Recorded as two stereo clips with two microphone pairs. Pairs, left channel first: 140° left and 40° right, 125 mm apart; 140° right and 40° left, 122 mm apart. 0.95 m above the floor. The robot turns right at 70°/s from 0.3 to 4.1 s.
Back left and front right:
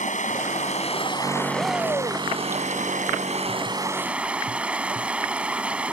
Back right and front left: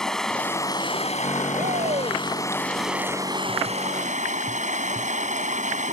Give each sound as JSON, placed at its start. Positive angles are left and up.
{"t": 0.0, "sound": "running water", "azimuth_deg": 130}
{"t": 1.6, "sound": "a shout", "azimuth_deg": 40}